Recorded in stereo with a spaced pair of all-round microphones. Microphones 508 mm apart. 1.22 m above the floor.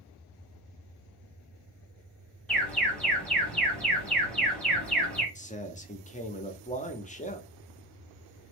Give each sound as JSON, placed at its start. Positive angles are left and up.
{"t": 2.5, "sound": "an alarm", "side_deg": 0, "distance_m": 1.1}
{"t": 5.3, "sound": "a man speaking", "side_deg": 15, "distance_m": 0.5}